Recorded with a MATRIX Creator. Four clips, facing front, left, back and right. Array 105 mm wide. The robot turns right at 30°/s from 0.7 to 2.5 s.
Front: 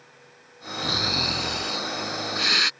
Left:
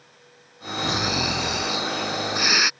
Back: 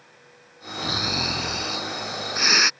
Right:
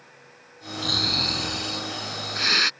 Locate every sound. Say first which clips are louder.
0.8 s snoring: left 5 dB, even; 100° left; by 2.7 s 150° left